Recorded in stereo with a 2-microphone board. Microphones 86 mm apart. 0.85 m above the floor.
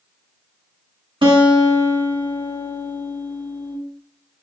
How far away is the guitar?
About 0.9 m.